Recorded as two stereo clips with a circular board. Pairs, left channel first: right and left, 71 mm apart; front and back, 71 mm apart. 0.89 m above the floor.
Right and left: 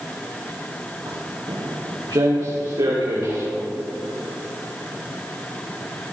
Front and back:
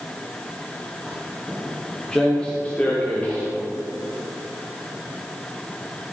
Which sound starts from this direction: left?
Footsteps, at 1.1 s.